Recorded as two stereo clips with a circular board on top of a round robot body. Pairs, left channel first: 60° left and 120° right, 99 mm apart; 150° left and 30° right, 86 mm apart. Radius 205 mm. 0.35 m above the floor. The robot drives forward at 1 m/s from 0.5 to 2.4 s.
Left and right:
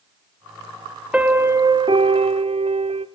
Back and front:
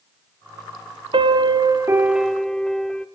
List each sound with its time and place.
1.1 s a piano: 40° right, 1.1 m; by 3.1 s 125° right, 0.9 m